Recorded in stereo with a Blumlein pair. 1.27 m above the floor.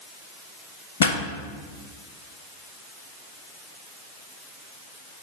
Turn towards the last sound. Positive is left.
turn(degrees=65)